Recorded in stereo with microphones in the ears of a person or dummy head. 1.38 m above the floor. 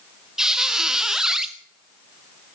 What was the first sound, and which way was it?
A squeak, 5° right (ahead or behind).